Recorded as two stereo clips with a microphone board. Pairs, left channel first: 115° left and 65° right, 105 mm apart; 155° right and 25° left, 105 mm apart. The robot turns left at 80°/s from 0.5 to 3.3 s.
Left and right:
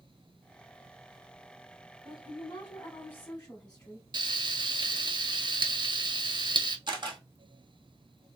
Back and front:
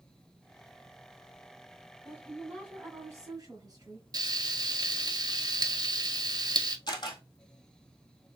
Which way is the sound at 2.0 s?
140° left.